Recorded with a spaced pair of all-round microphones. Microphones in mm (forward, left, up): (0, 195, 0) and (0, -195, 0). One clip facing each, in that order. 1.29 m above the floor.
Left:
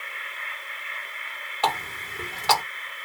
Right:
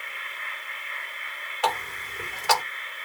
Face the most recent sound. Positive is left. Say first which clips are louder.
# even
turn(degrees=55)  # may be behind; listen again after turning